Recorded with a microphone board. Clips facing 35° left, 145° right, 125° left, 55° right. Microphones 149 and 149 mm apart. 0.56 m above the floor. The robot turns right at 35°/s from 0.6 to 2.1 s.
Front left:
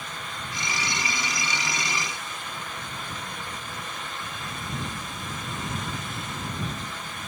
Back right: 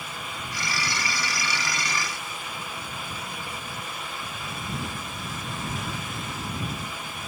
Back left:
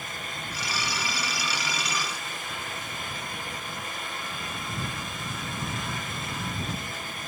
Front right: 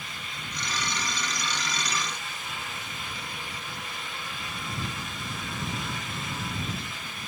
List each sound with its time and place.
Only background noise.